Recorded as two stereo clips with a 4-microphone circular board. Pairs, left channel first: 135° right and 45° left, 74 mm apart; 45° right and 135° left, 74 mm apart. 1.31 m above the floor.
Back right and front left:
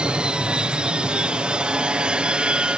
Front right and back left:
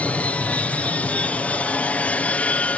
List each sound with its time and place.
0.0 s an aircraft: 10° right